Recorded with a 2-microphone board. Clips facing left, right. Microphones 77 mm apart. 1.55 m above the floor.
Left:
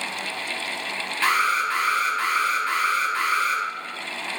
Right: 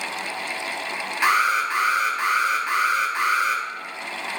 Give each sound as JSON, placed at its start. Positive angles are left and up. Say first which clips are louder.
{"t": 1.2, "sound": "an alarm", "louder": "right 2 dB", "side_deg": -15, "distance_m": 0.5}